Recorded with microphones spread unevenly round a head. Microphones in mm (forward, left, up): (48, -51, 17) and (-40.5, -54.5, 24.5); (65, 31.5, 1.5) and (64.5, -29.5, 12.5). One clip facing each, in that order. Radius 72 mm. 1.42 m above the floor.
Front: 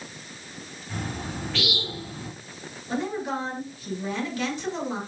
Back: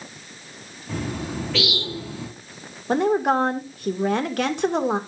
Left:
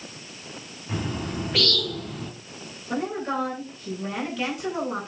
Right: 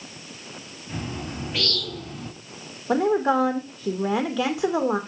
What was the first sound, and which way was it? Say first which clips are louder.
A bird: back 5 dB, left 3 dB; 160° left.